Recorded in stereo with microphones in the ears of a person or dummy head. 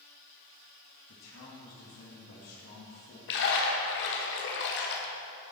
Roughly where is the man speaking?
Left.